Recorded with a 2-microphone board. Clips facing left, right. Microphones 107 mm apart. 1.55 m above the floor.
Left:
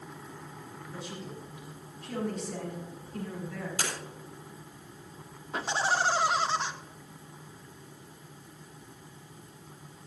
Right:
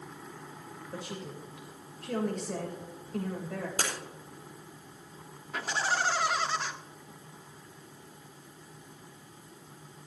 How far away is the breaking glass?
About 5 m.